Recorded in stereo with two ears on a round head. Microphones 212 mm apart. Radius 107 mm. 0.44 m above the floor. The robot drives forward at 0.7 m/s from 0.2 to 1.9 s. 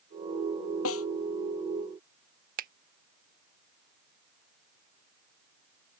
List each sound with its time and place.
0.8 s a snare drum: 70° left (ahead or behind)
2.6 s a finger snap: 35° right (ahead or behind)